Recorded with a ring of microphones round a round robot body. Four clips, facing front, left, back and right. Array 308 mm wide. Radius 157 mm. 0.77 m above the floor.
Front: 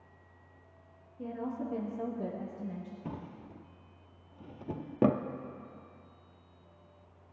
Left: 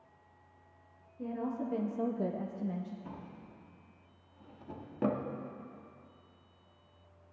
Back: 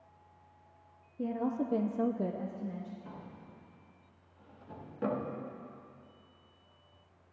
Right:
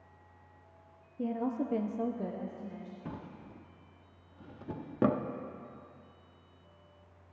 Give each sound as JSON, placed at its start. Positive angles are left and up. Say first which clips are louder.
{"t": 1.2, "sound": "a woman speaking", "louder": "right 3 dB, back 4 dB", "azimuth_deg": -130, "distance_m": 1.5}
{"t": 3.0, "sound": "a drawer", "louder": "right 3 dB, front 5 dB", "azimuth_deg": -30, "distance_m": 0.7}